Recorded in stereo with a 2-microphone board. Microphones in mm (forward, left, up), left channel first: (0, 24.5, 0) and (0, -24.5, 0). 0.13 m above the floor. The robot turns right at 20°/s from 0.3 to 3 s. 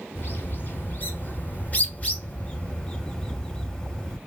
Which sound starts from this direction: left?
A bird, at 0.1 s.